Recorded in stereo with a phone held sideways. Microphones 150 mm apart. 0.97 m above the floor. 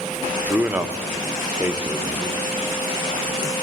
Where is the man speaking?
10° right (ahead or behind), 0.7 m.